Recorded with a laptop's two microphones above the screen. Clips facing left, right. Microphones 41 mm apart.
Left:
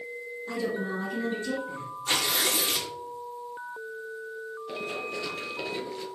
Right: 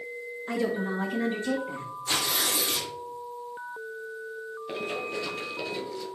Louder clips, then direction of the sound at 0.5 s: Right 2 dB; 45° right (ahead or behind).